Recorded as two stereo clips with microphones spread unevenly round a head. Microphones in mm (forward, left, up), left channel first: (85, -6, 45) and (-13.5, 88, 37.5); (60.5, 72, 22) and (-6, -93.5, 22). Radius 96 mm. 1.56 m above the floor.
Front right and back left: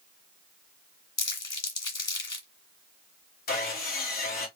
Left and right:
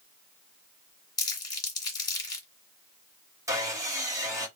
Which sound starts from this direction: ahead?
Crumpling, at 1.2 s.